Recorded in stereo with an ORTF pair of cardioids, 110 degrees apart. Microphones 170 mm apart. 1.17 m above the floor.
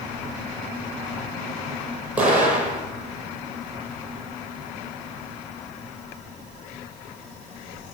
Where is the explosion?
10° right, 6.5 m.